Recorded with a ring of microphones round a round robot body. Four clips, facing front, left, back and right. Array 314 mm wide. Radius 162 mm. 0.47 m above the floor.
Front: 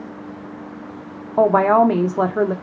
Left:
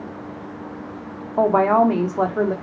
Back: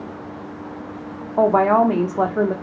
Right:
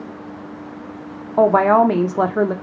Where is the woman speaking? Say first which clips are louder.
Right 3 dB, front 1 dB; 55° right, 0.8 m.